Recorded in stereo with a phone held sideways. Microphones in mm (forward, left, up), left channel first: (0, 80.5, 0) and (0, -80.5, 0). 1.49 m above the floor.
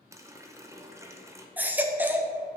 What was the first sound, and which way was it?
A running tap, 15° right (ahead or behind).